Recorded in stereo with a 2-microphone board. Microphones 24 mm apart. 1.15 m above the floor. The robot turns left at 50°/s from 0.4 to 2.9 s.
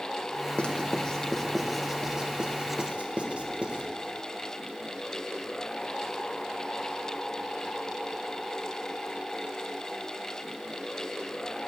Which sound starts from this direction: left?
Writing, at 0.6 s.